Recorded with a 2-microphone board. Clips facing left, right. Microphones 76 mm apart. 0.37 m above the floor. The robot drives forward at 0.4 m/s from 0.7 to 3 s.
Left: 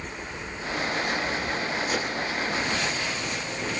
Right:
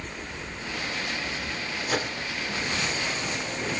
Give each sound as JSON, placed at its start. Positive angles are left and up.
{"t": 1.9, "sound": "a microwave", "side_deg": -45, "distance_m": 1.7}